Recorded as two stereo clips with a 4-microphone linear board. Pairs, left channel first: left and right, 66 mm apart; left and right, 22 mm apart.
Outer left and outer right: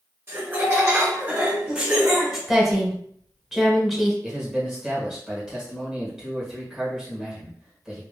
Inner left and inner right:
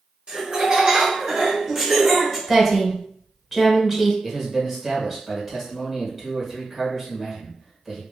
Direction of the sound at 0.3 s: 45° right (ahead or behind).